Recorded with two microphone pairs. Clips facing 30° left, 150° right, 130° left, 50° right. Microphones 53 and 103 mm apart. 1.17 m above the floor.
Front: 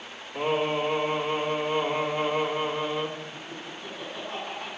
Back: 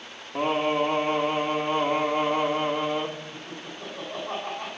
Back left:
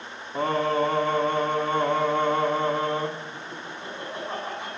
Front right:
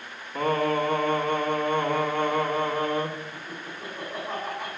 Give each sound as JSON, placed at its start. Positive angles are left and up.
{"t": 0.3, "sound": "singing", "azimuth_deg": -170, "distance_m": 3.5}
{"t": 3.3, "sound": "laughter", "azimuth_deg": -145, "distance_m": 9.0}